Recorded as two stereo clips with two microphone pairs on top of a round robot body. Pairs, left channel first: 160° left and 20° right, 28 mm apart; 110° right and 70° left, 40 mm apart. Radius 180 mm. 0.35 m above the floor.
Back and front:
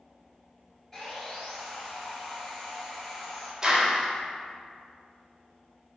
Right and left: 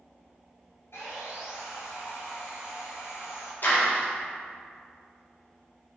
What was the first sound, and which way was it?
Sawing, 115° right.